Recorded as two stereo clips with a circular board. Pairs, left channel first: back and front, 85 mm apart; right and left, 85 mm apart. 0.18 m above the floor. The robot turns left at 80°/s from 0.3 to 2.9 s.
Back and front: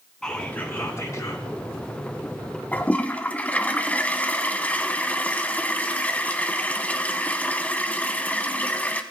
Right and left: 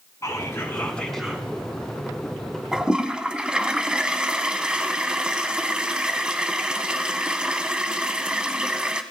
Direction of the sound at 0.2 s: 105° right.